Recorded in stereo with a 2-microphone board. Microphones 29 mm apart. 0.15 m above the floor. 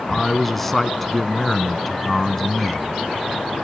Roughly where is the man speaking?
Centre.